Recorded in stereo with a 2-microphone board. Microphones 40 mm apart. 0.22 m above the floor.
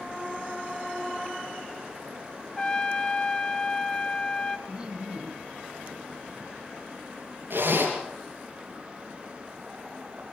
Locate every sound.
2.6 s a trumpet: 20° left (ahead or behind), 0.8 m
4.7 s laughter: 25° right (ahead or behind), 1.8 m
7.5 s a zipper: 60° right (ahead or behind), 4.5 m